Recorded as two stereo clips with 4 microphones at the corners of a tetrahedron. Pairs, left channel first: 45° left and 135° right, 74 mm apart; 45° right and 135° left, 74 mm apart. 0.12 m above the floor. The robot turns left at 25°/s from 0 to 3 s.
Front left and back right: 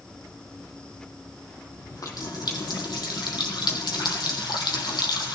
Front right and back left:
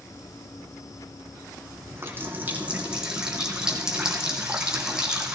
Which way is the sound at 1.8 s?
85° left.